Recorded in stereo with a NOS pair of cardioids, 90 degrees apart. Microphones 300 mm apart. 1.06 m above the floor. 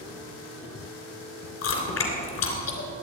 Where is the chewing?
60° left, 3 m.